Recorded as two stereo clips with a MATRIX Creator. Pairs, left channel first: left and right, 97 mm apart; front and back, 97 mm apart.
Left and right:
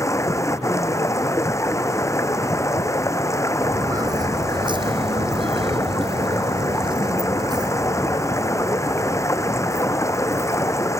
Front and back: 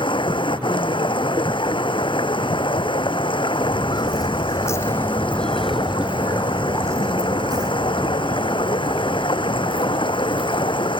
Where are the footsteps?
35° right; by 10.9 s 155° right.